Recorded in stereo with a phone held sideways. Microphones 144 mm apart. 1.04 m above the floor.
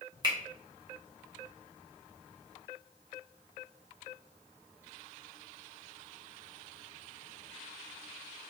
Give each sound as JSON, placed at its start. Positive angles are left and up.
{"t": 0.2, "sound": "a finger snap", "side_deg": -30, "distance_m": 1.0}